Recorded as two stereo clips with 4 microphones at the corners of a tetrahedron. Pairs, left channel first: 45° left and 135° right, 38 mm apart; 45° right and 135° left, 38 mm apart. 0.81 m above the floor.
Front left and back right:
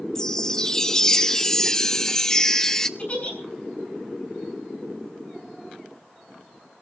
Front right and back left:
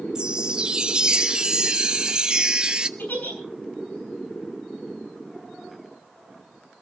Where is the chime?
100° left, 0.8 m.